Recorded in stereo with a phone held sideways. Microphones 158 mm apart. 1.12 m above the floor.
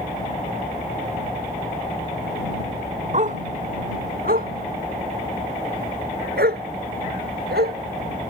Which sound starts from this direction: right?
A dog barking, at 3.1 s.